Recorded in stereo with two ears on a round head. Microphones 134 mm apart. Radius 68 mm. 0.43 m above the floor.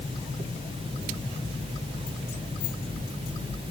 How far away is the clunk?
No clunk in this recording.